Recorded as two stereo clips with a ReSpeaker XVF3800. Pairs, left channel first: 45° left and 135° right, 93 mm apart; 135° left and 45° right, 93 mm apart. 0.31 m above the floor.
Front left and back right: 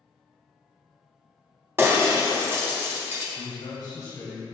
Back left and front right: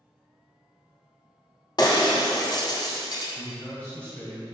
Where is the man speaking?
70° left, 1.1 m.